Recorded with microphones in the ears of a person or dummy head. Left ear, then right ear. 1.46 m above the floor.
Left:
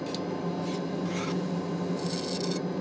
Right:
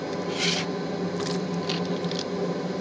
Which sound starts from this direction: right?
A machine running, at 0.0 s.